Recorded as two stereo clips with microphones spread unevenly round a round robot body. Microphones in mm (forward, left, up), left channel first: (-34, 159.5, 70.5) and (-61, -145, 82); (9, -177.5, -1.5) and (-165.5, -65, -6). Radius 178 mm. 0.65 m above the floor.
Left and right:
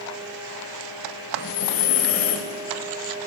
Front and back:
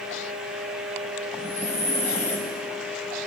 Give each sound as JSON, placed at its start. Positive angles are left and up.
{"t": 1.3, "sound": "breathing", "azimuth_deg": 35, "distance_m": 0.7}